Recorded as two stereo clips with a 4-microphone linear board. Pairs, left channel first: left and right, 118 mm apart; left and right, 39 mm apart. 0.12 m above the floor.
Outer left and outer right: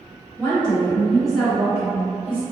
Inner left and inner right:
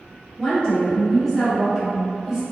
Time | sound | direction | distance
0.4 | a woman speaking | 15° left (ahead or behind) | 1.5 m